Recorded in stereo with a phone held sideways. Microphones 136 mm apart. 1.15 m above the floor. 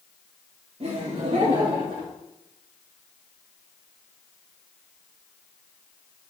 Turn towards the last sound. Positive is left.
turn(degrees=-75)  # may be behind; listen again after turning